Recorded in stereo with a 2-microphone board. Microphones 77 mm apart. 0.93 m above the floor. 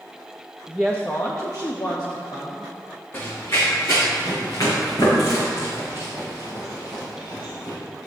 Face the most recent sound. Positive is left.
turn(degrees=85)